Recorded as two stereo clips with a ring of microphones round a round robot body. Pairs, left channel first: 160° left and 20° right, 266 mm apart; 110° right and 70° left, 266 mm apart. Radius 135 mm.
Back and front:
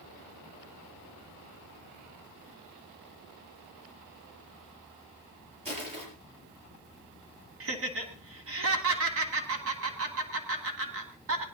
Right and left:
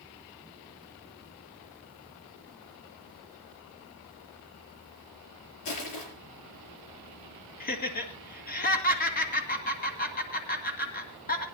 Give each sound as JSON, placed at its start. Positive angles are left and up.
{"t": 5.7, "sound": "crushing", "azimuth_deg": -90, "distance_m": 6.0}
{"t": 7.6, "sound": "laughter", "azimuth_deg": -55, "distance_m": 2.0}